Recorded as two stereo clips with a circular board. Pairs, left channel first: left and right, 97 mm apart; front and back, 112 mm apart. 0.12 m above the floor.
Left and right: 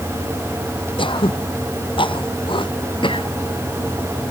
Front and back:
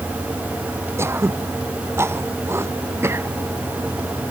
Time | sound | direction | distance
1.0 | throat clearing | 115° left | ?